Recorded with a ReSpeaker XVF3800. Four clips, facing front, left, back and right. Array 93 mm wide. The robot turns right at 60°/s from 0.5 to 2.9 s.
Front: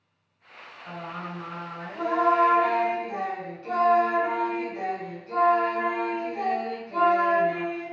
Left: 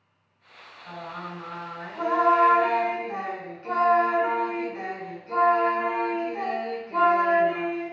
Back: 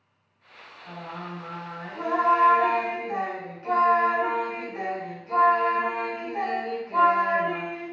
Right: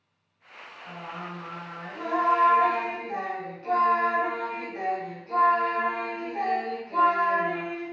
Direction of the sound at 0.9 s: 50° left.